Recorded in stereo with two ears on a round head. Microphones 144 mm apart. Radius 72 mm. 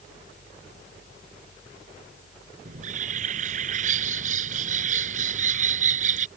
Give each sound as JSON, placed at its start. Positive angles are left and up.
{"t": 2.6, "sound": "a bird", "side_deg": -50}